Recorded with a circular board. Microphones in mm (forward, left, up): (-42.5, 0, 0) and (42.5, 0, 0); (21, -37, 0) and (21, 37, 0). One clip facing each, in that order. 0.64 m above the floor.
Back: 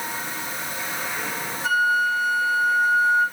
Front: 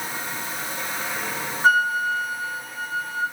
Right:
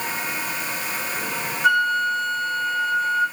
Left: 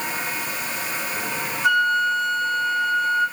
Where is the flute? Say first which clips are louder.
Front 1 dB, even; 40° right, 0.9 m.